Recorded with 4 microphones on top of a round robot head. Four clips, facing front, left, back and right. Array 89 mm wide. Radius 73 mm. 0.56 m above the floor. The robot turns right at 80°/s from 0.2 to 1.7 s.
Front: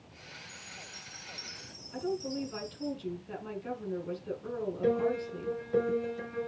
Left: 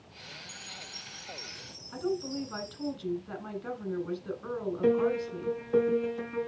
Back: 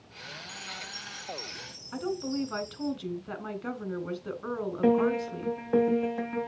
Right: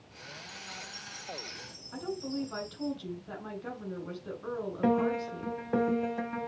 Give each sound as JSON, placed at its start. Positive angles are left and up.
{"t": 0.5, "sound": "a chime", "azimuth_deg": -150, "distance_m": 3.0}
{"t": 1.9, "sound": "a woman speaking", "azimuth_deg": -175, "distance_m": 3.5}
{"t": 4.8, "sound": "a piano", "azimuth_deg": -140, "distance_m": 2.5}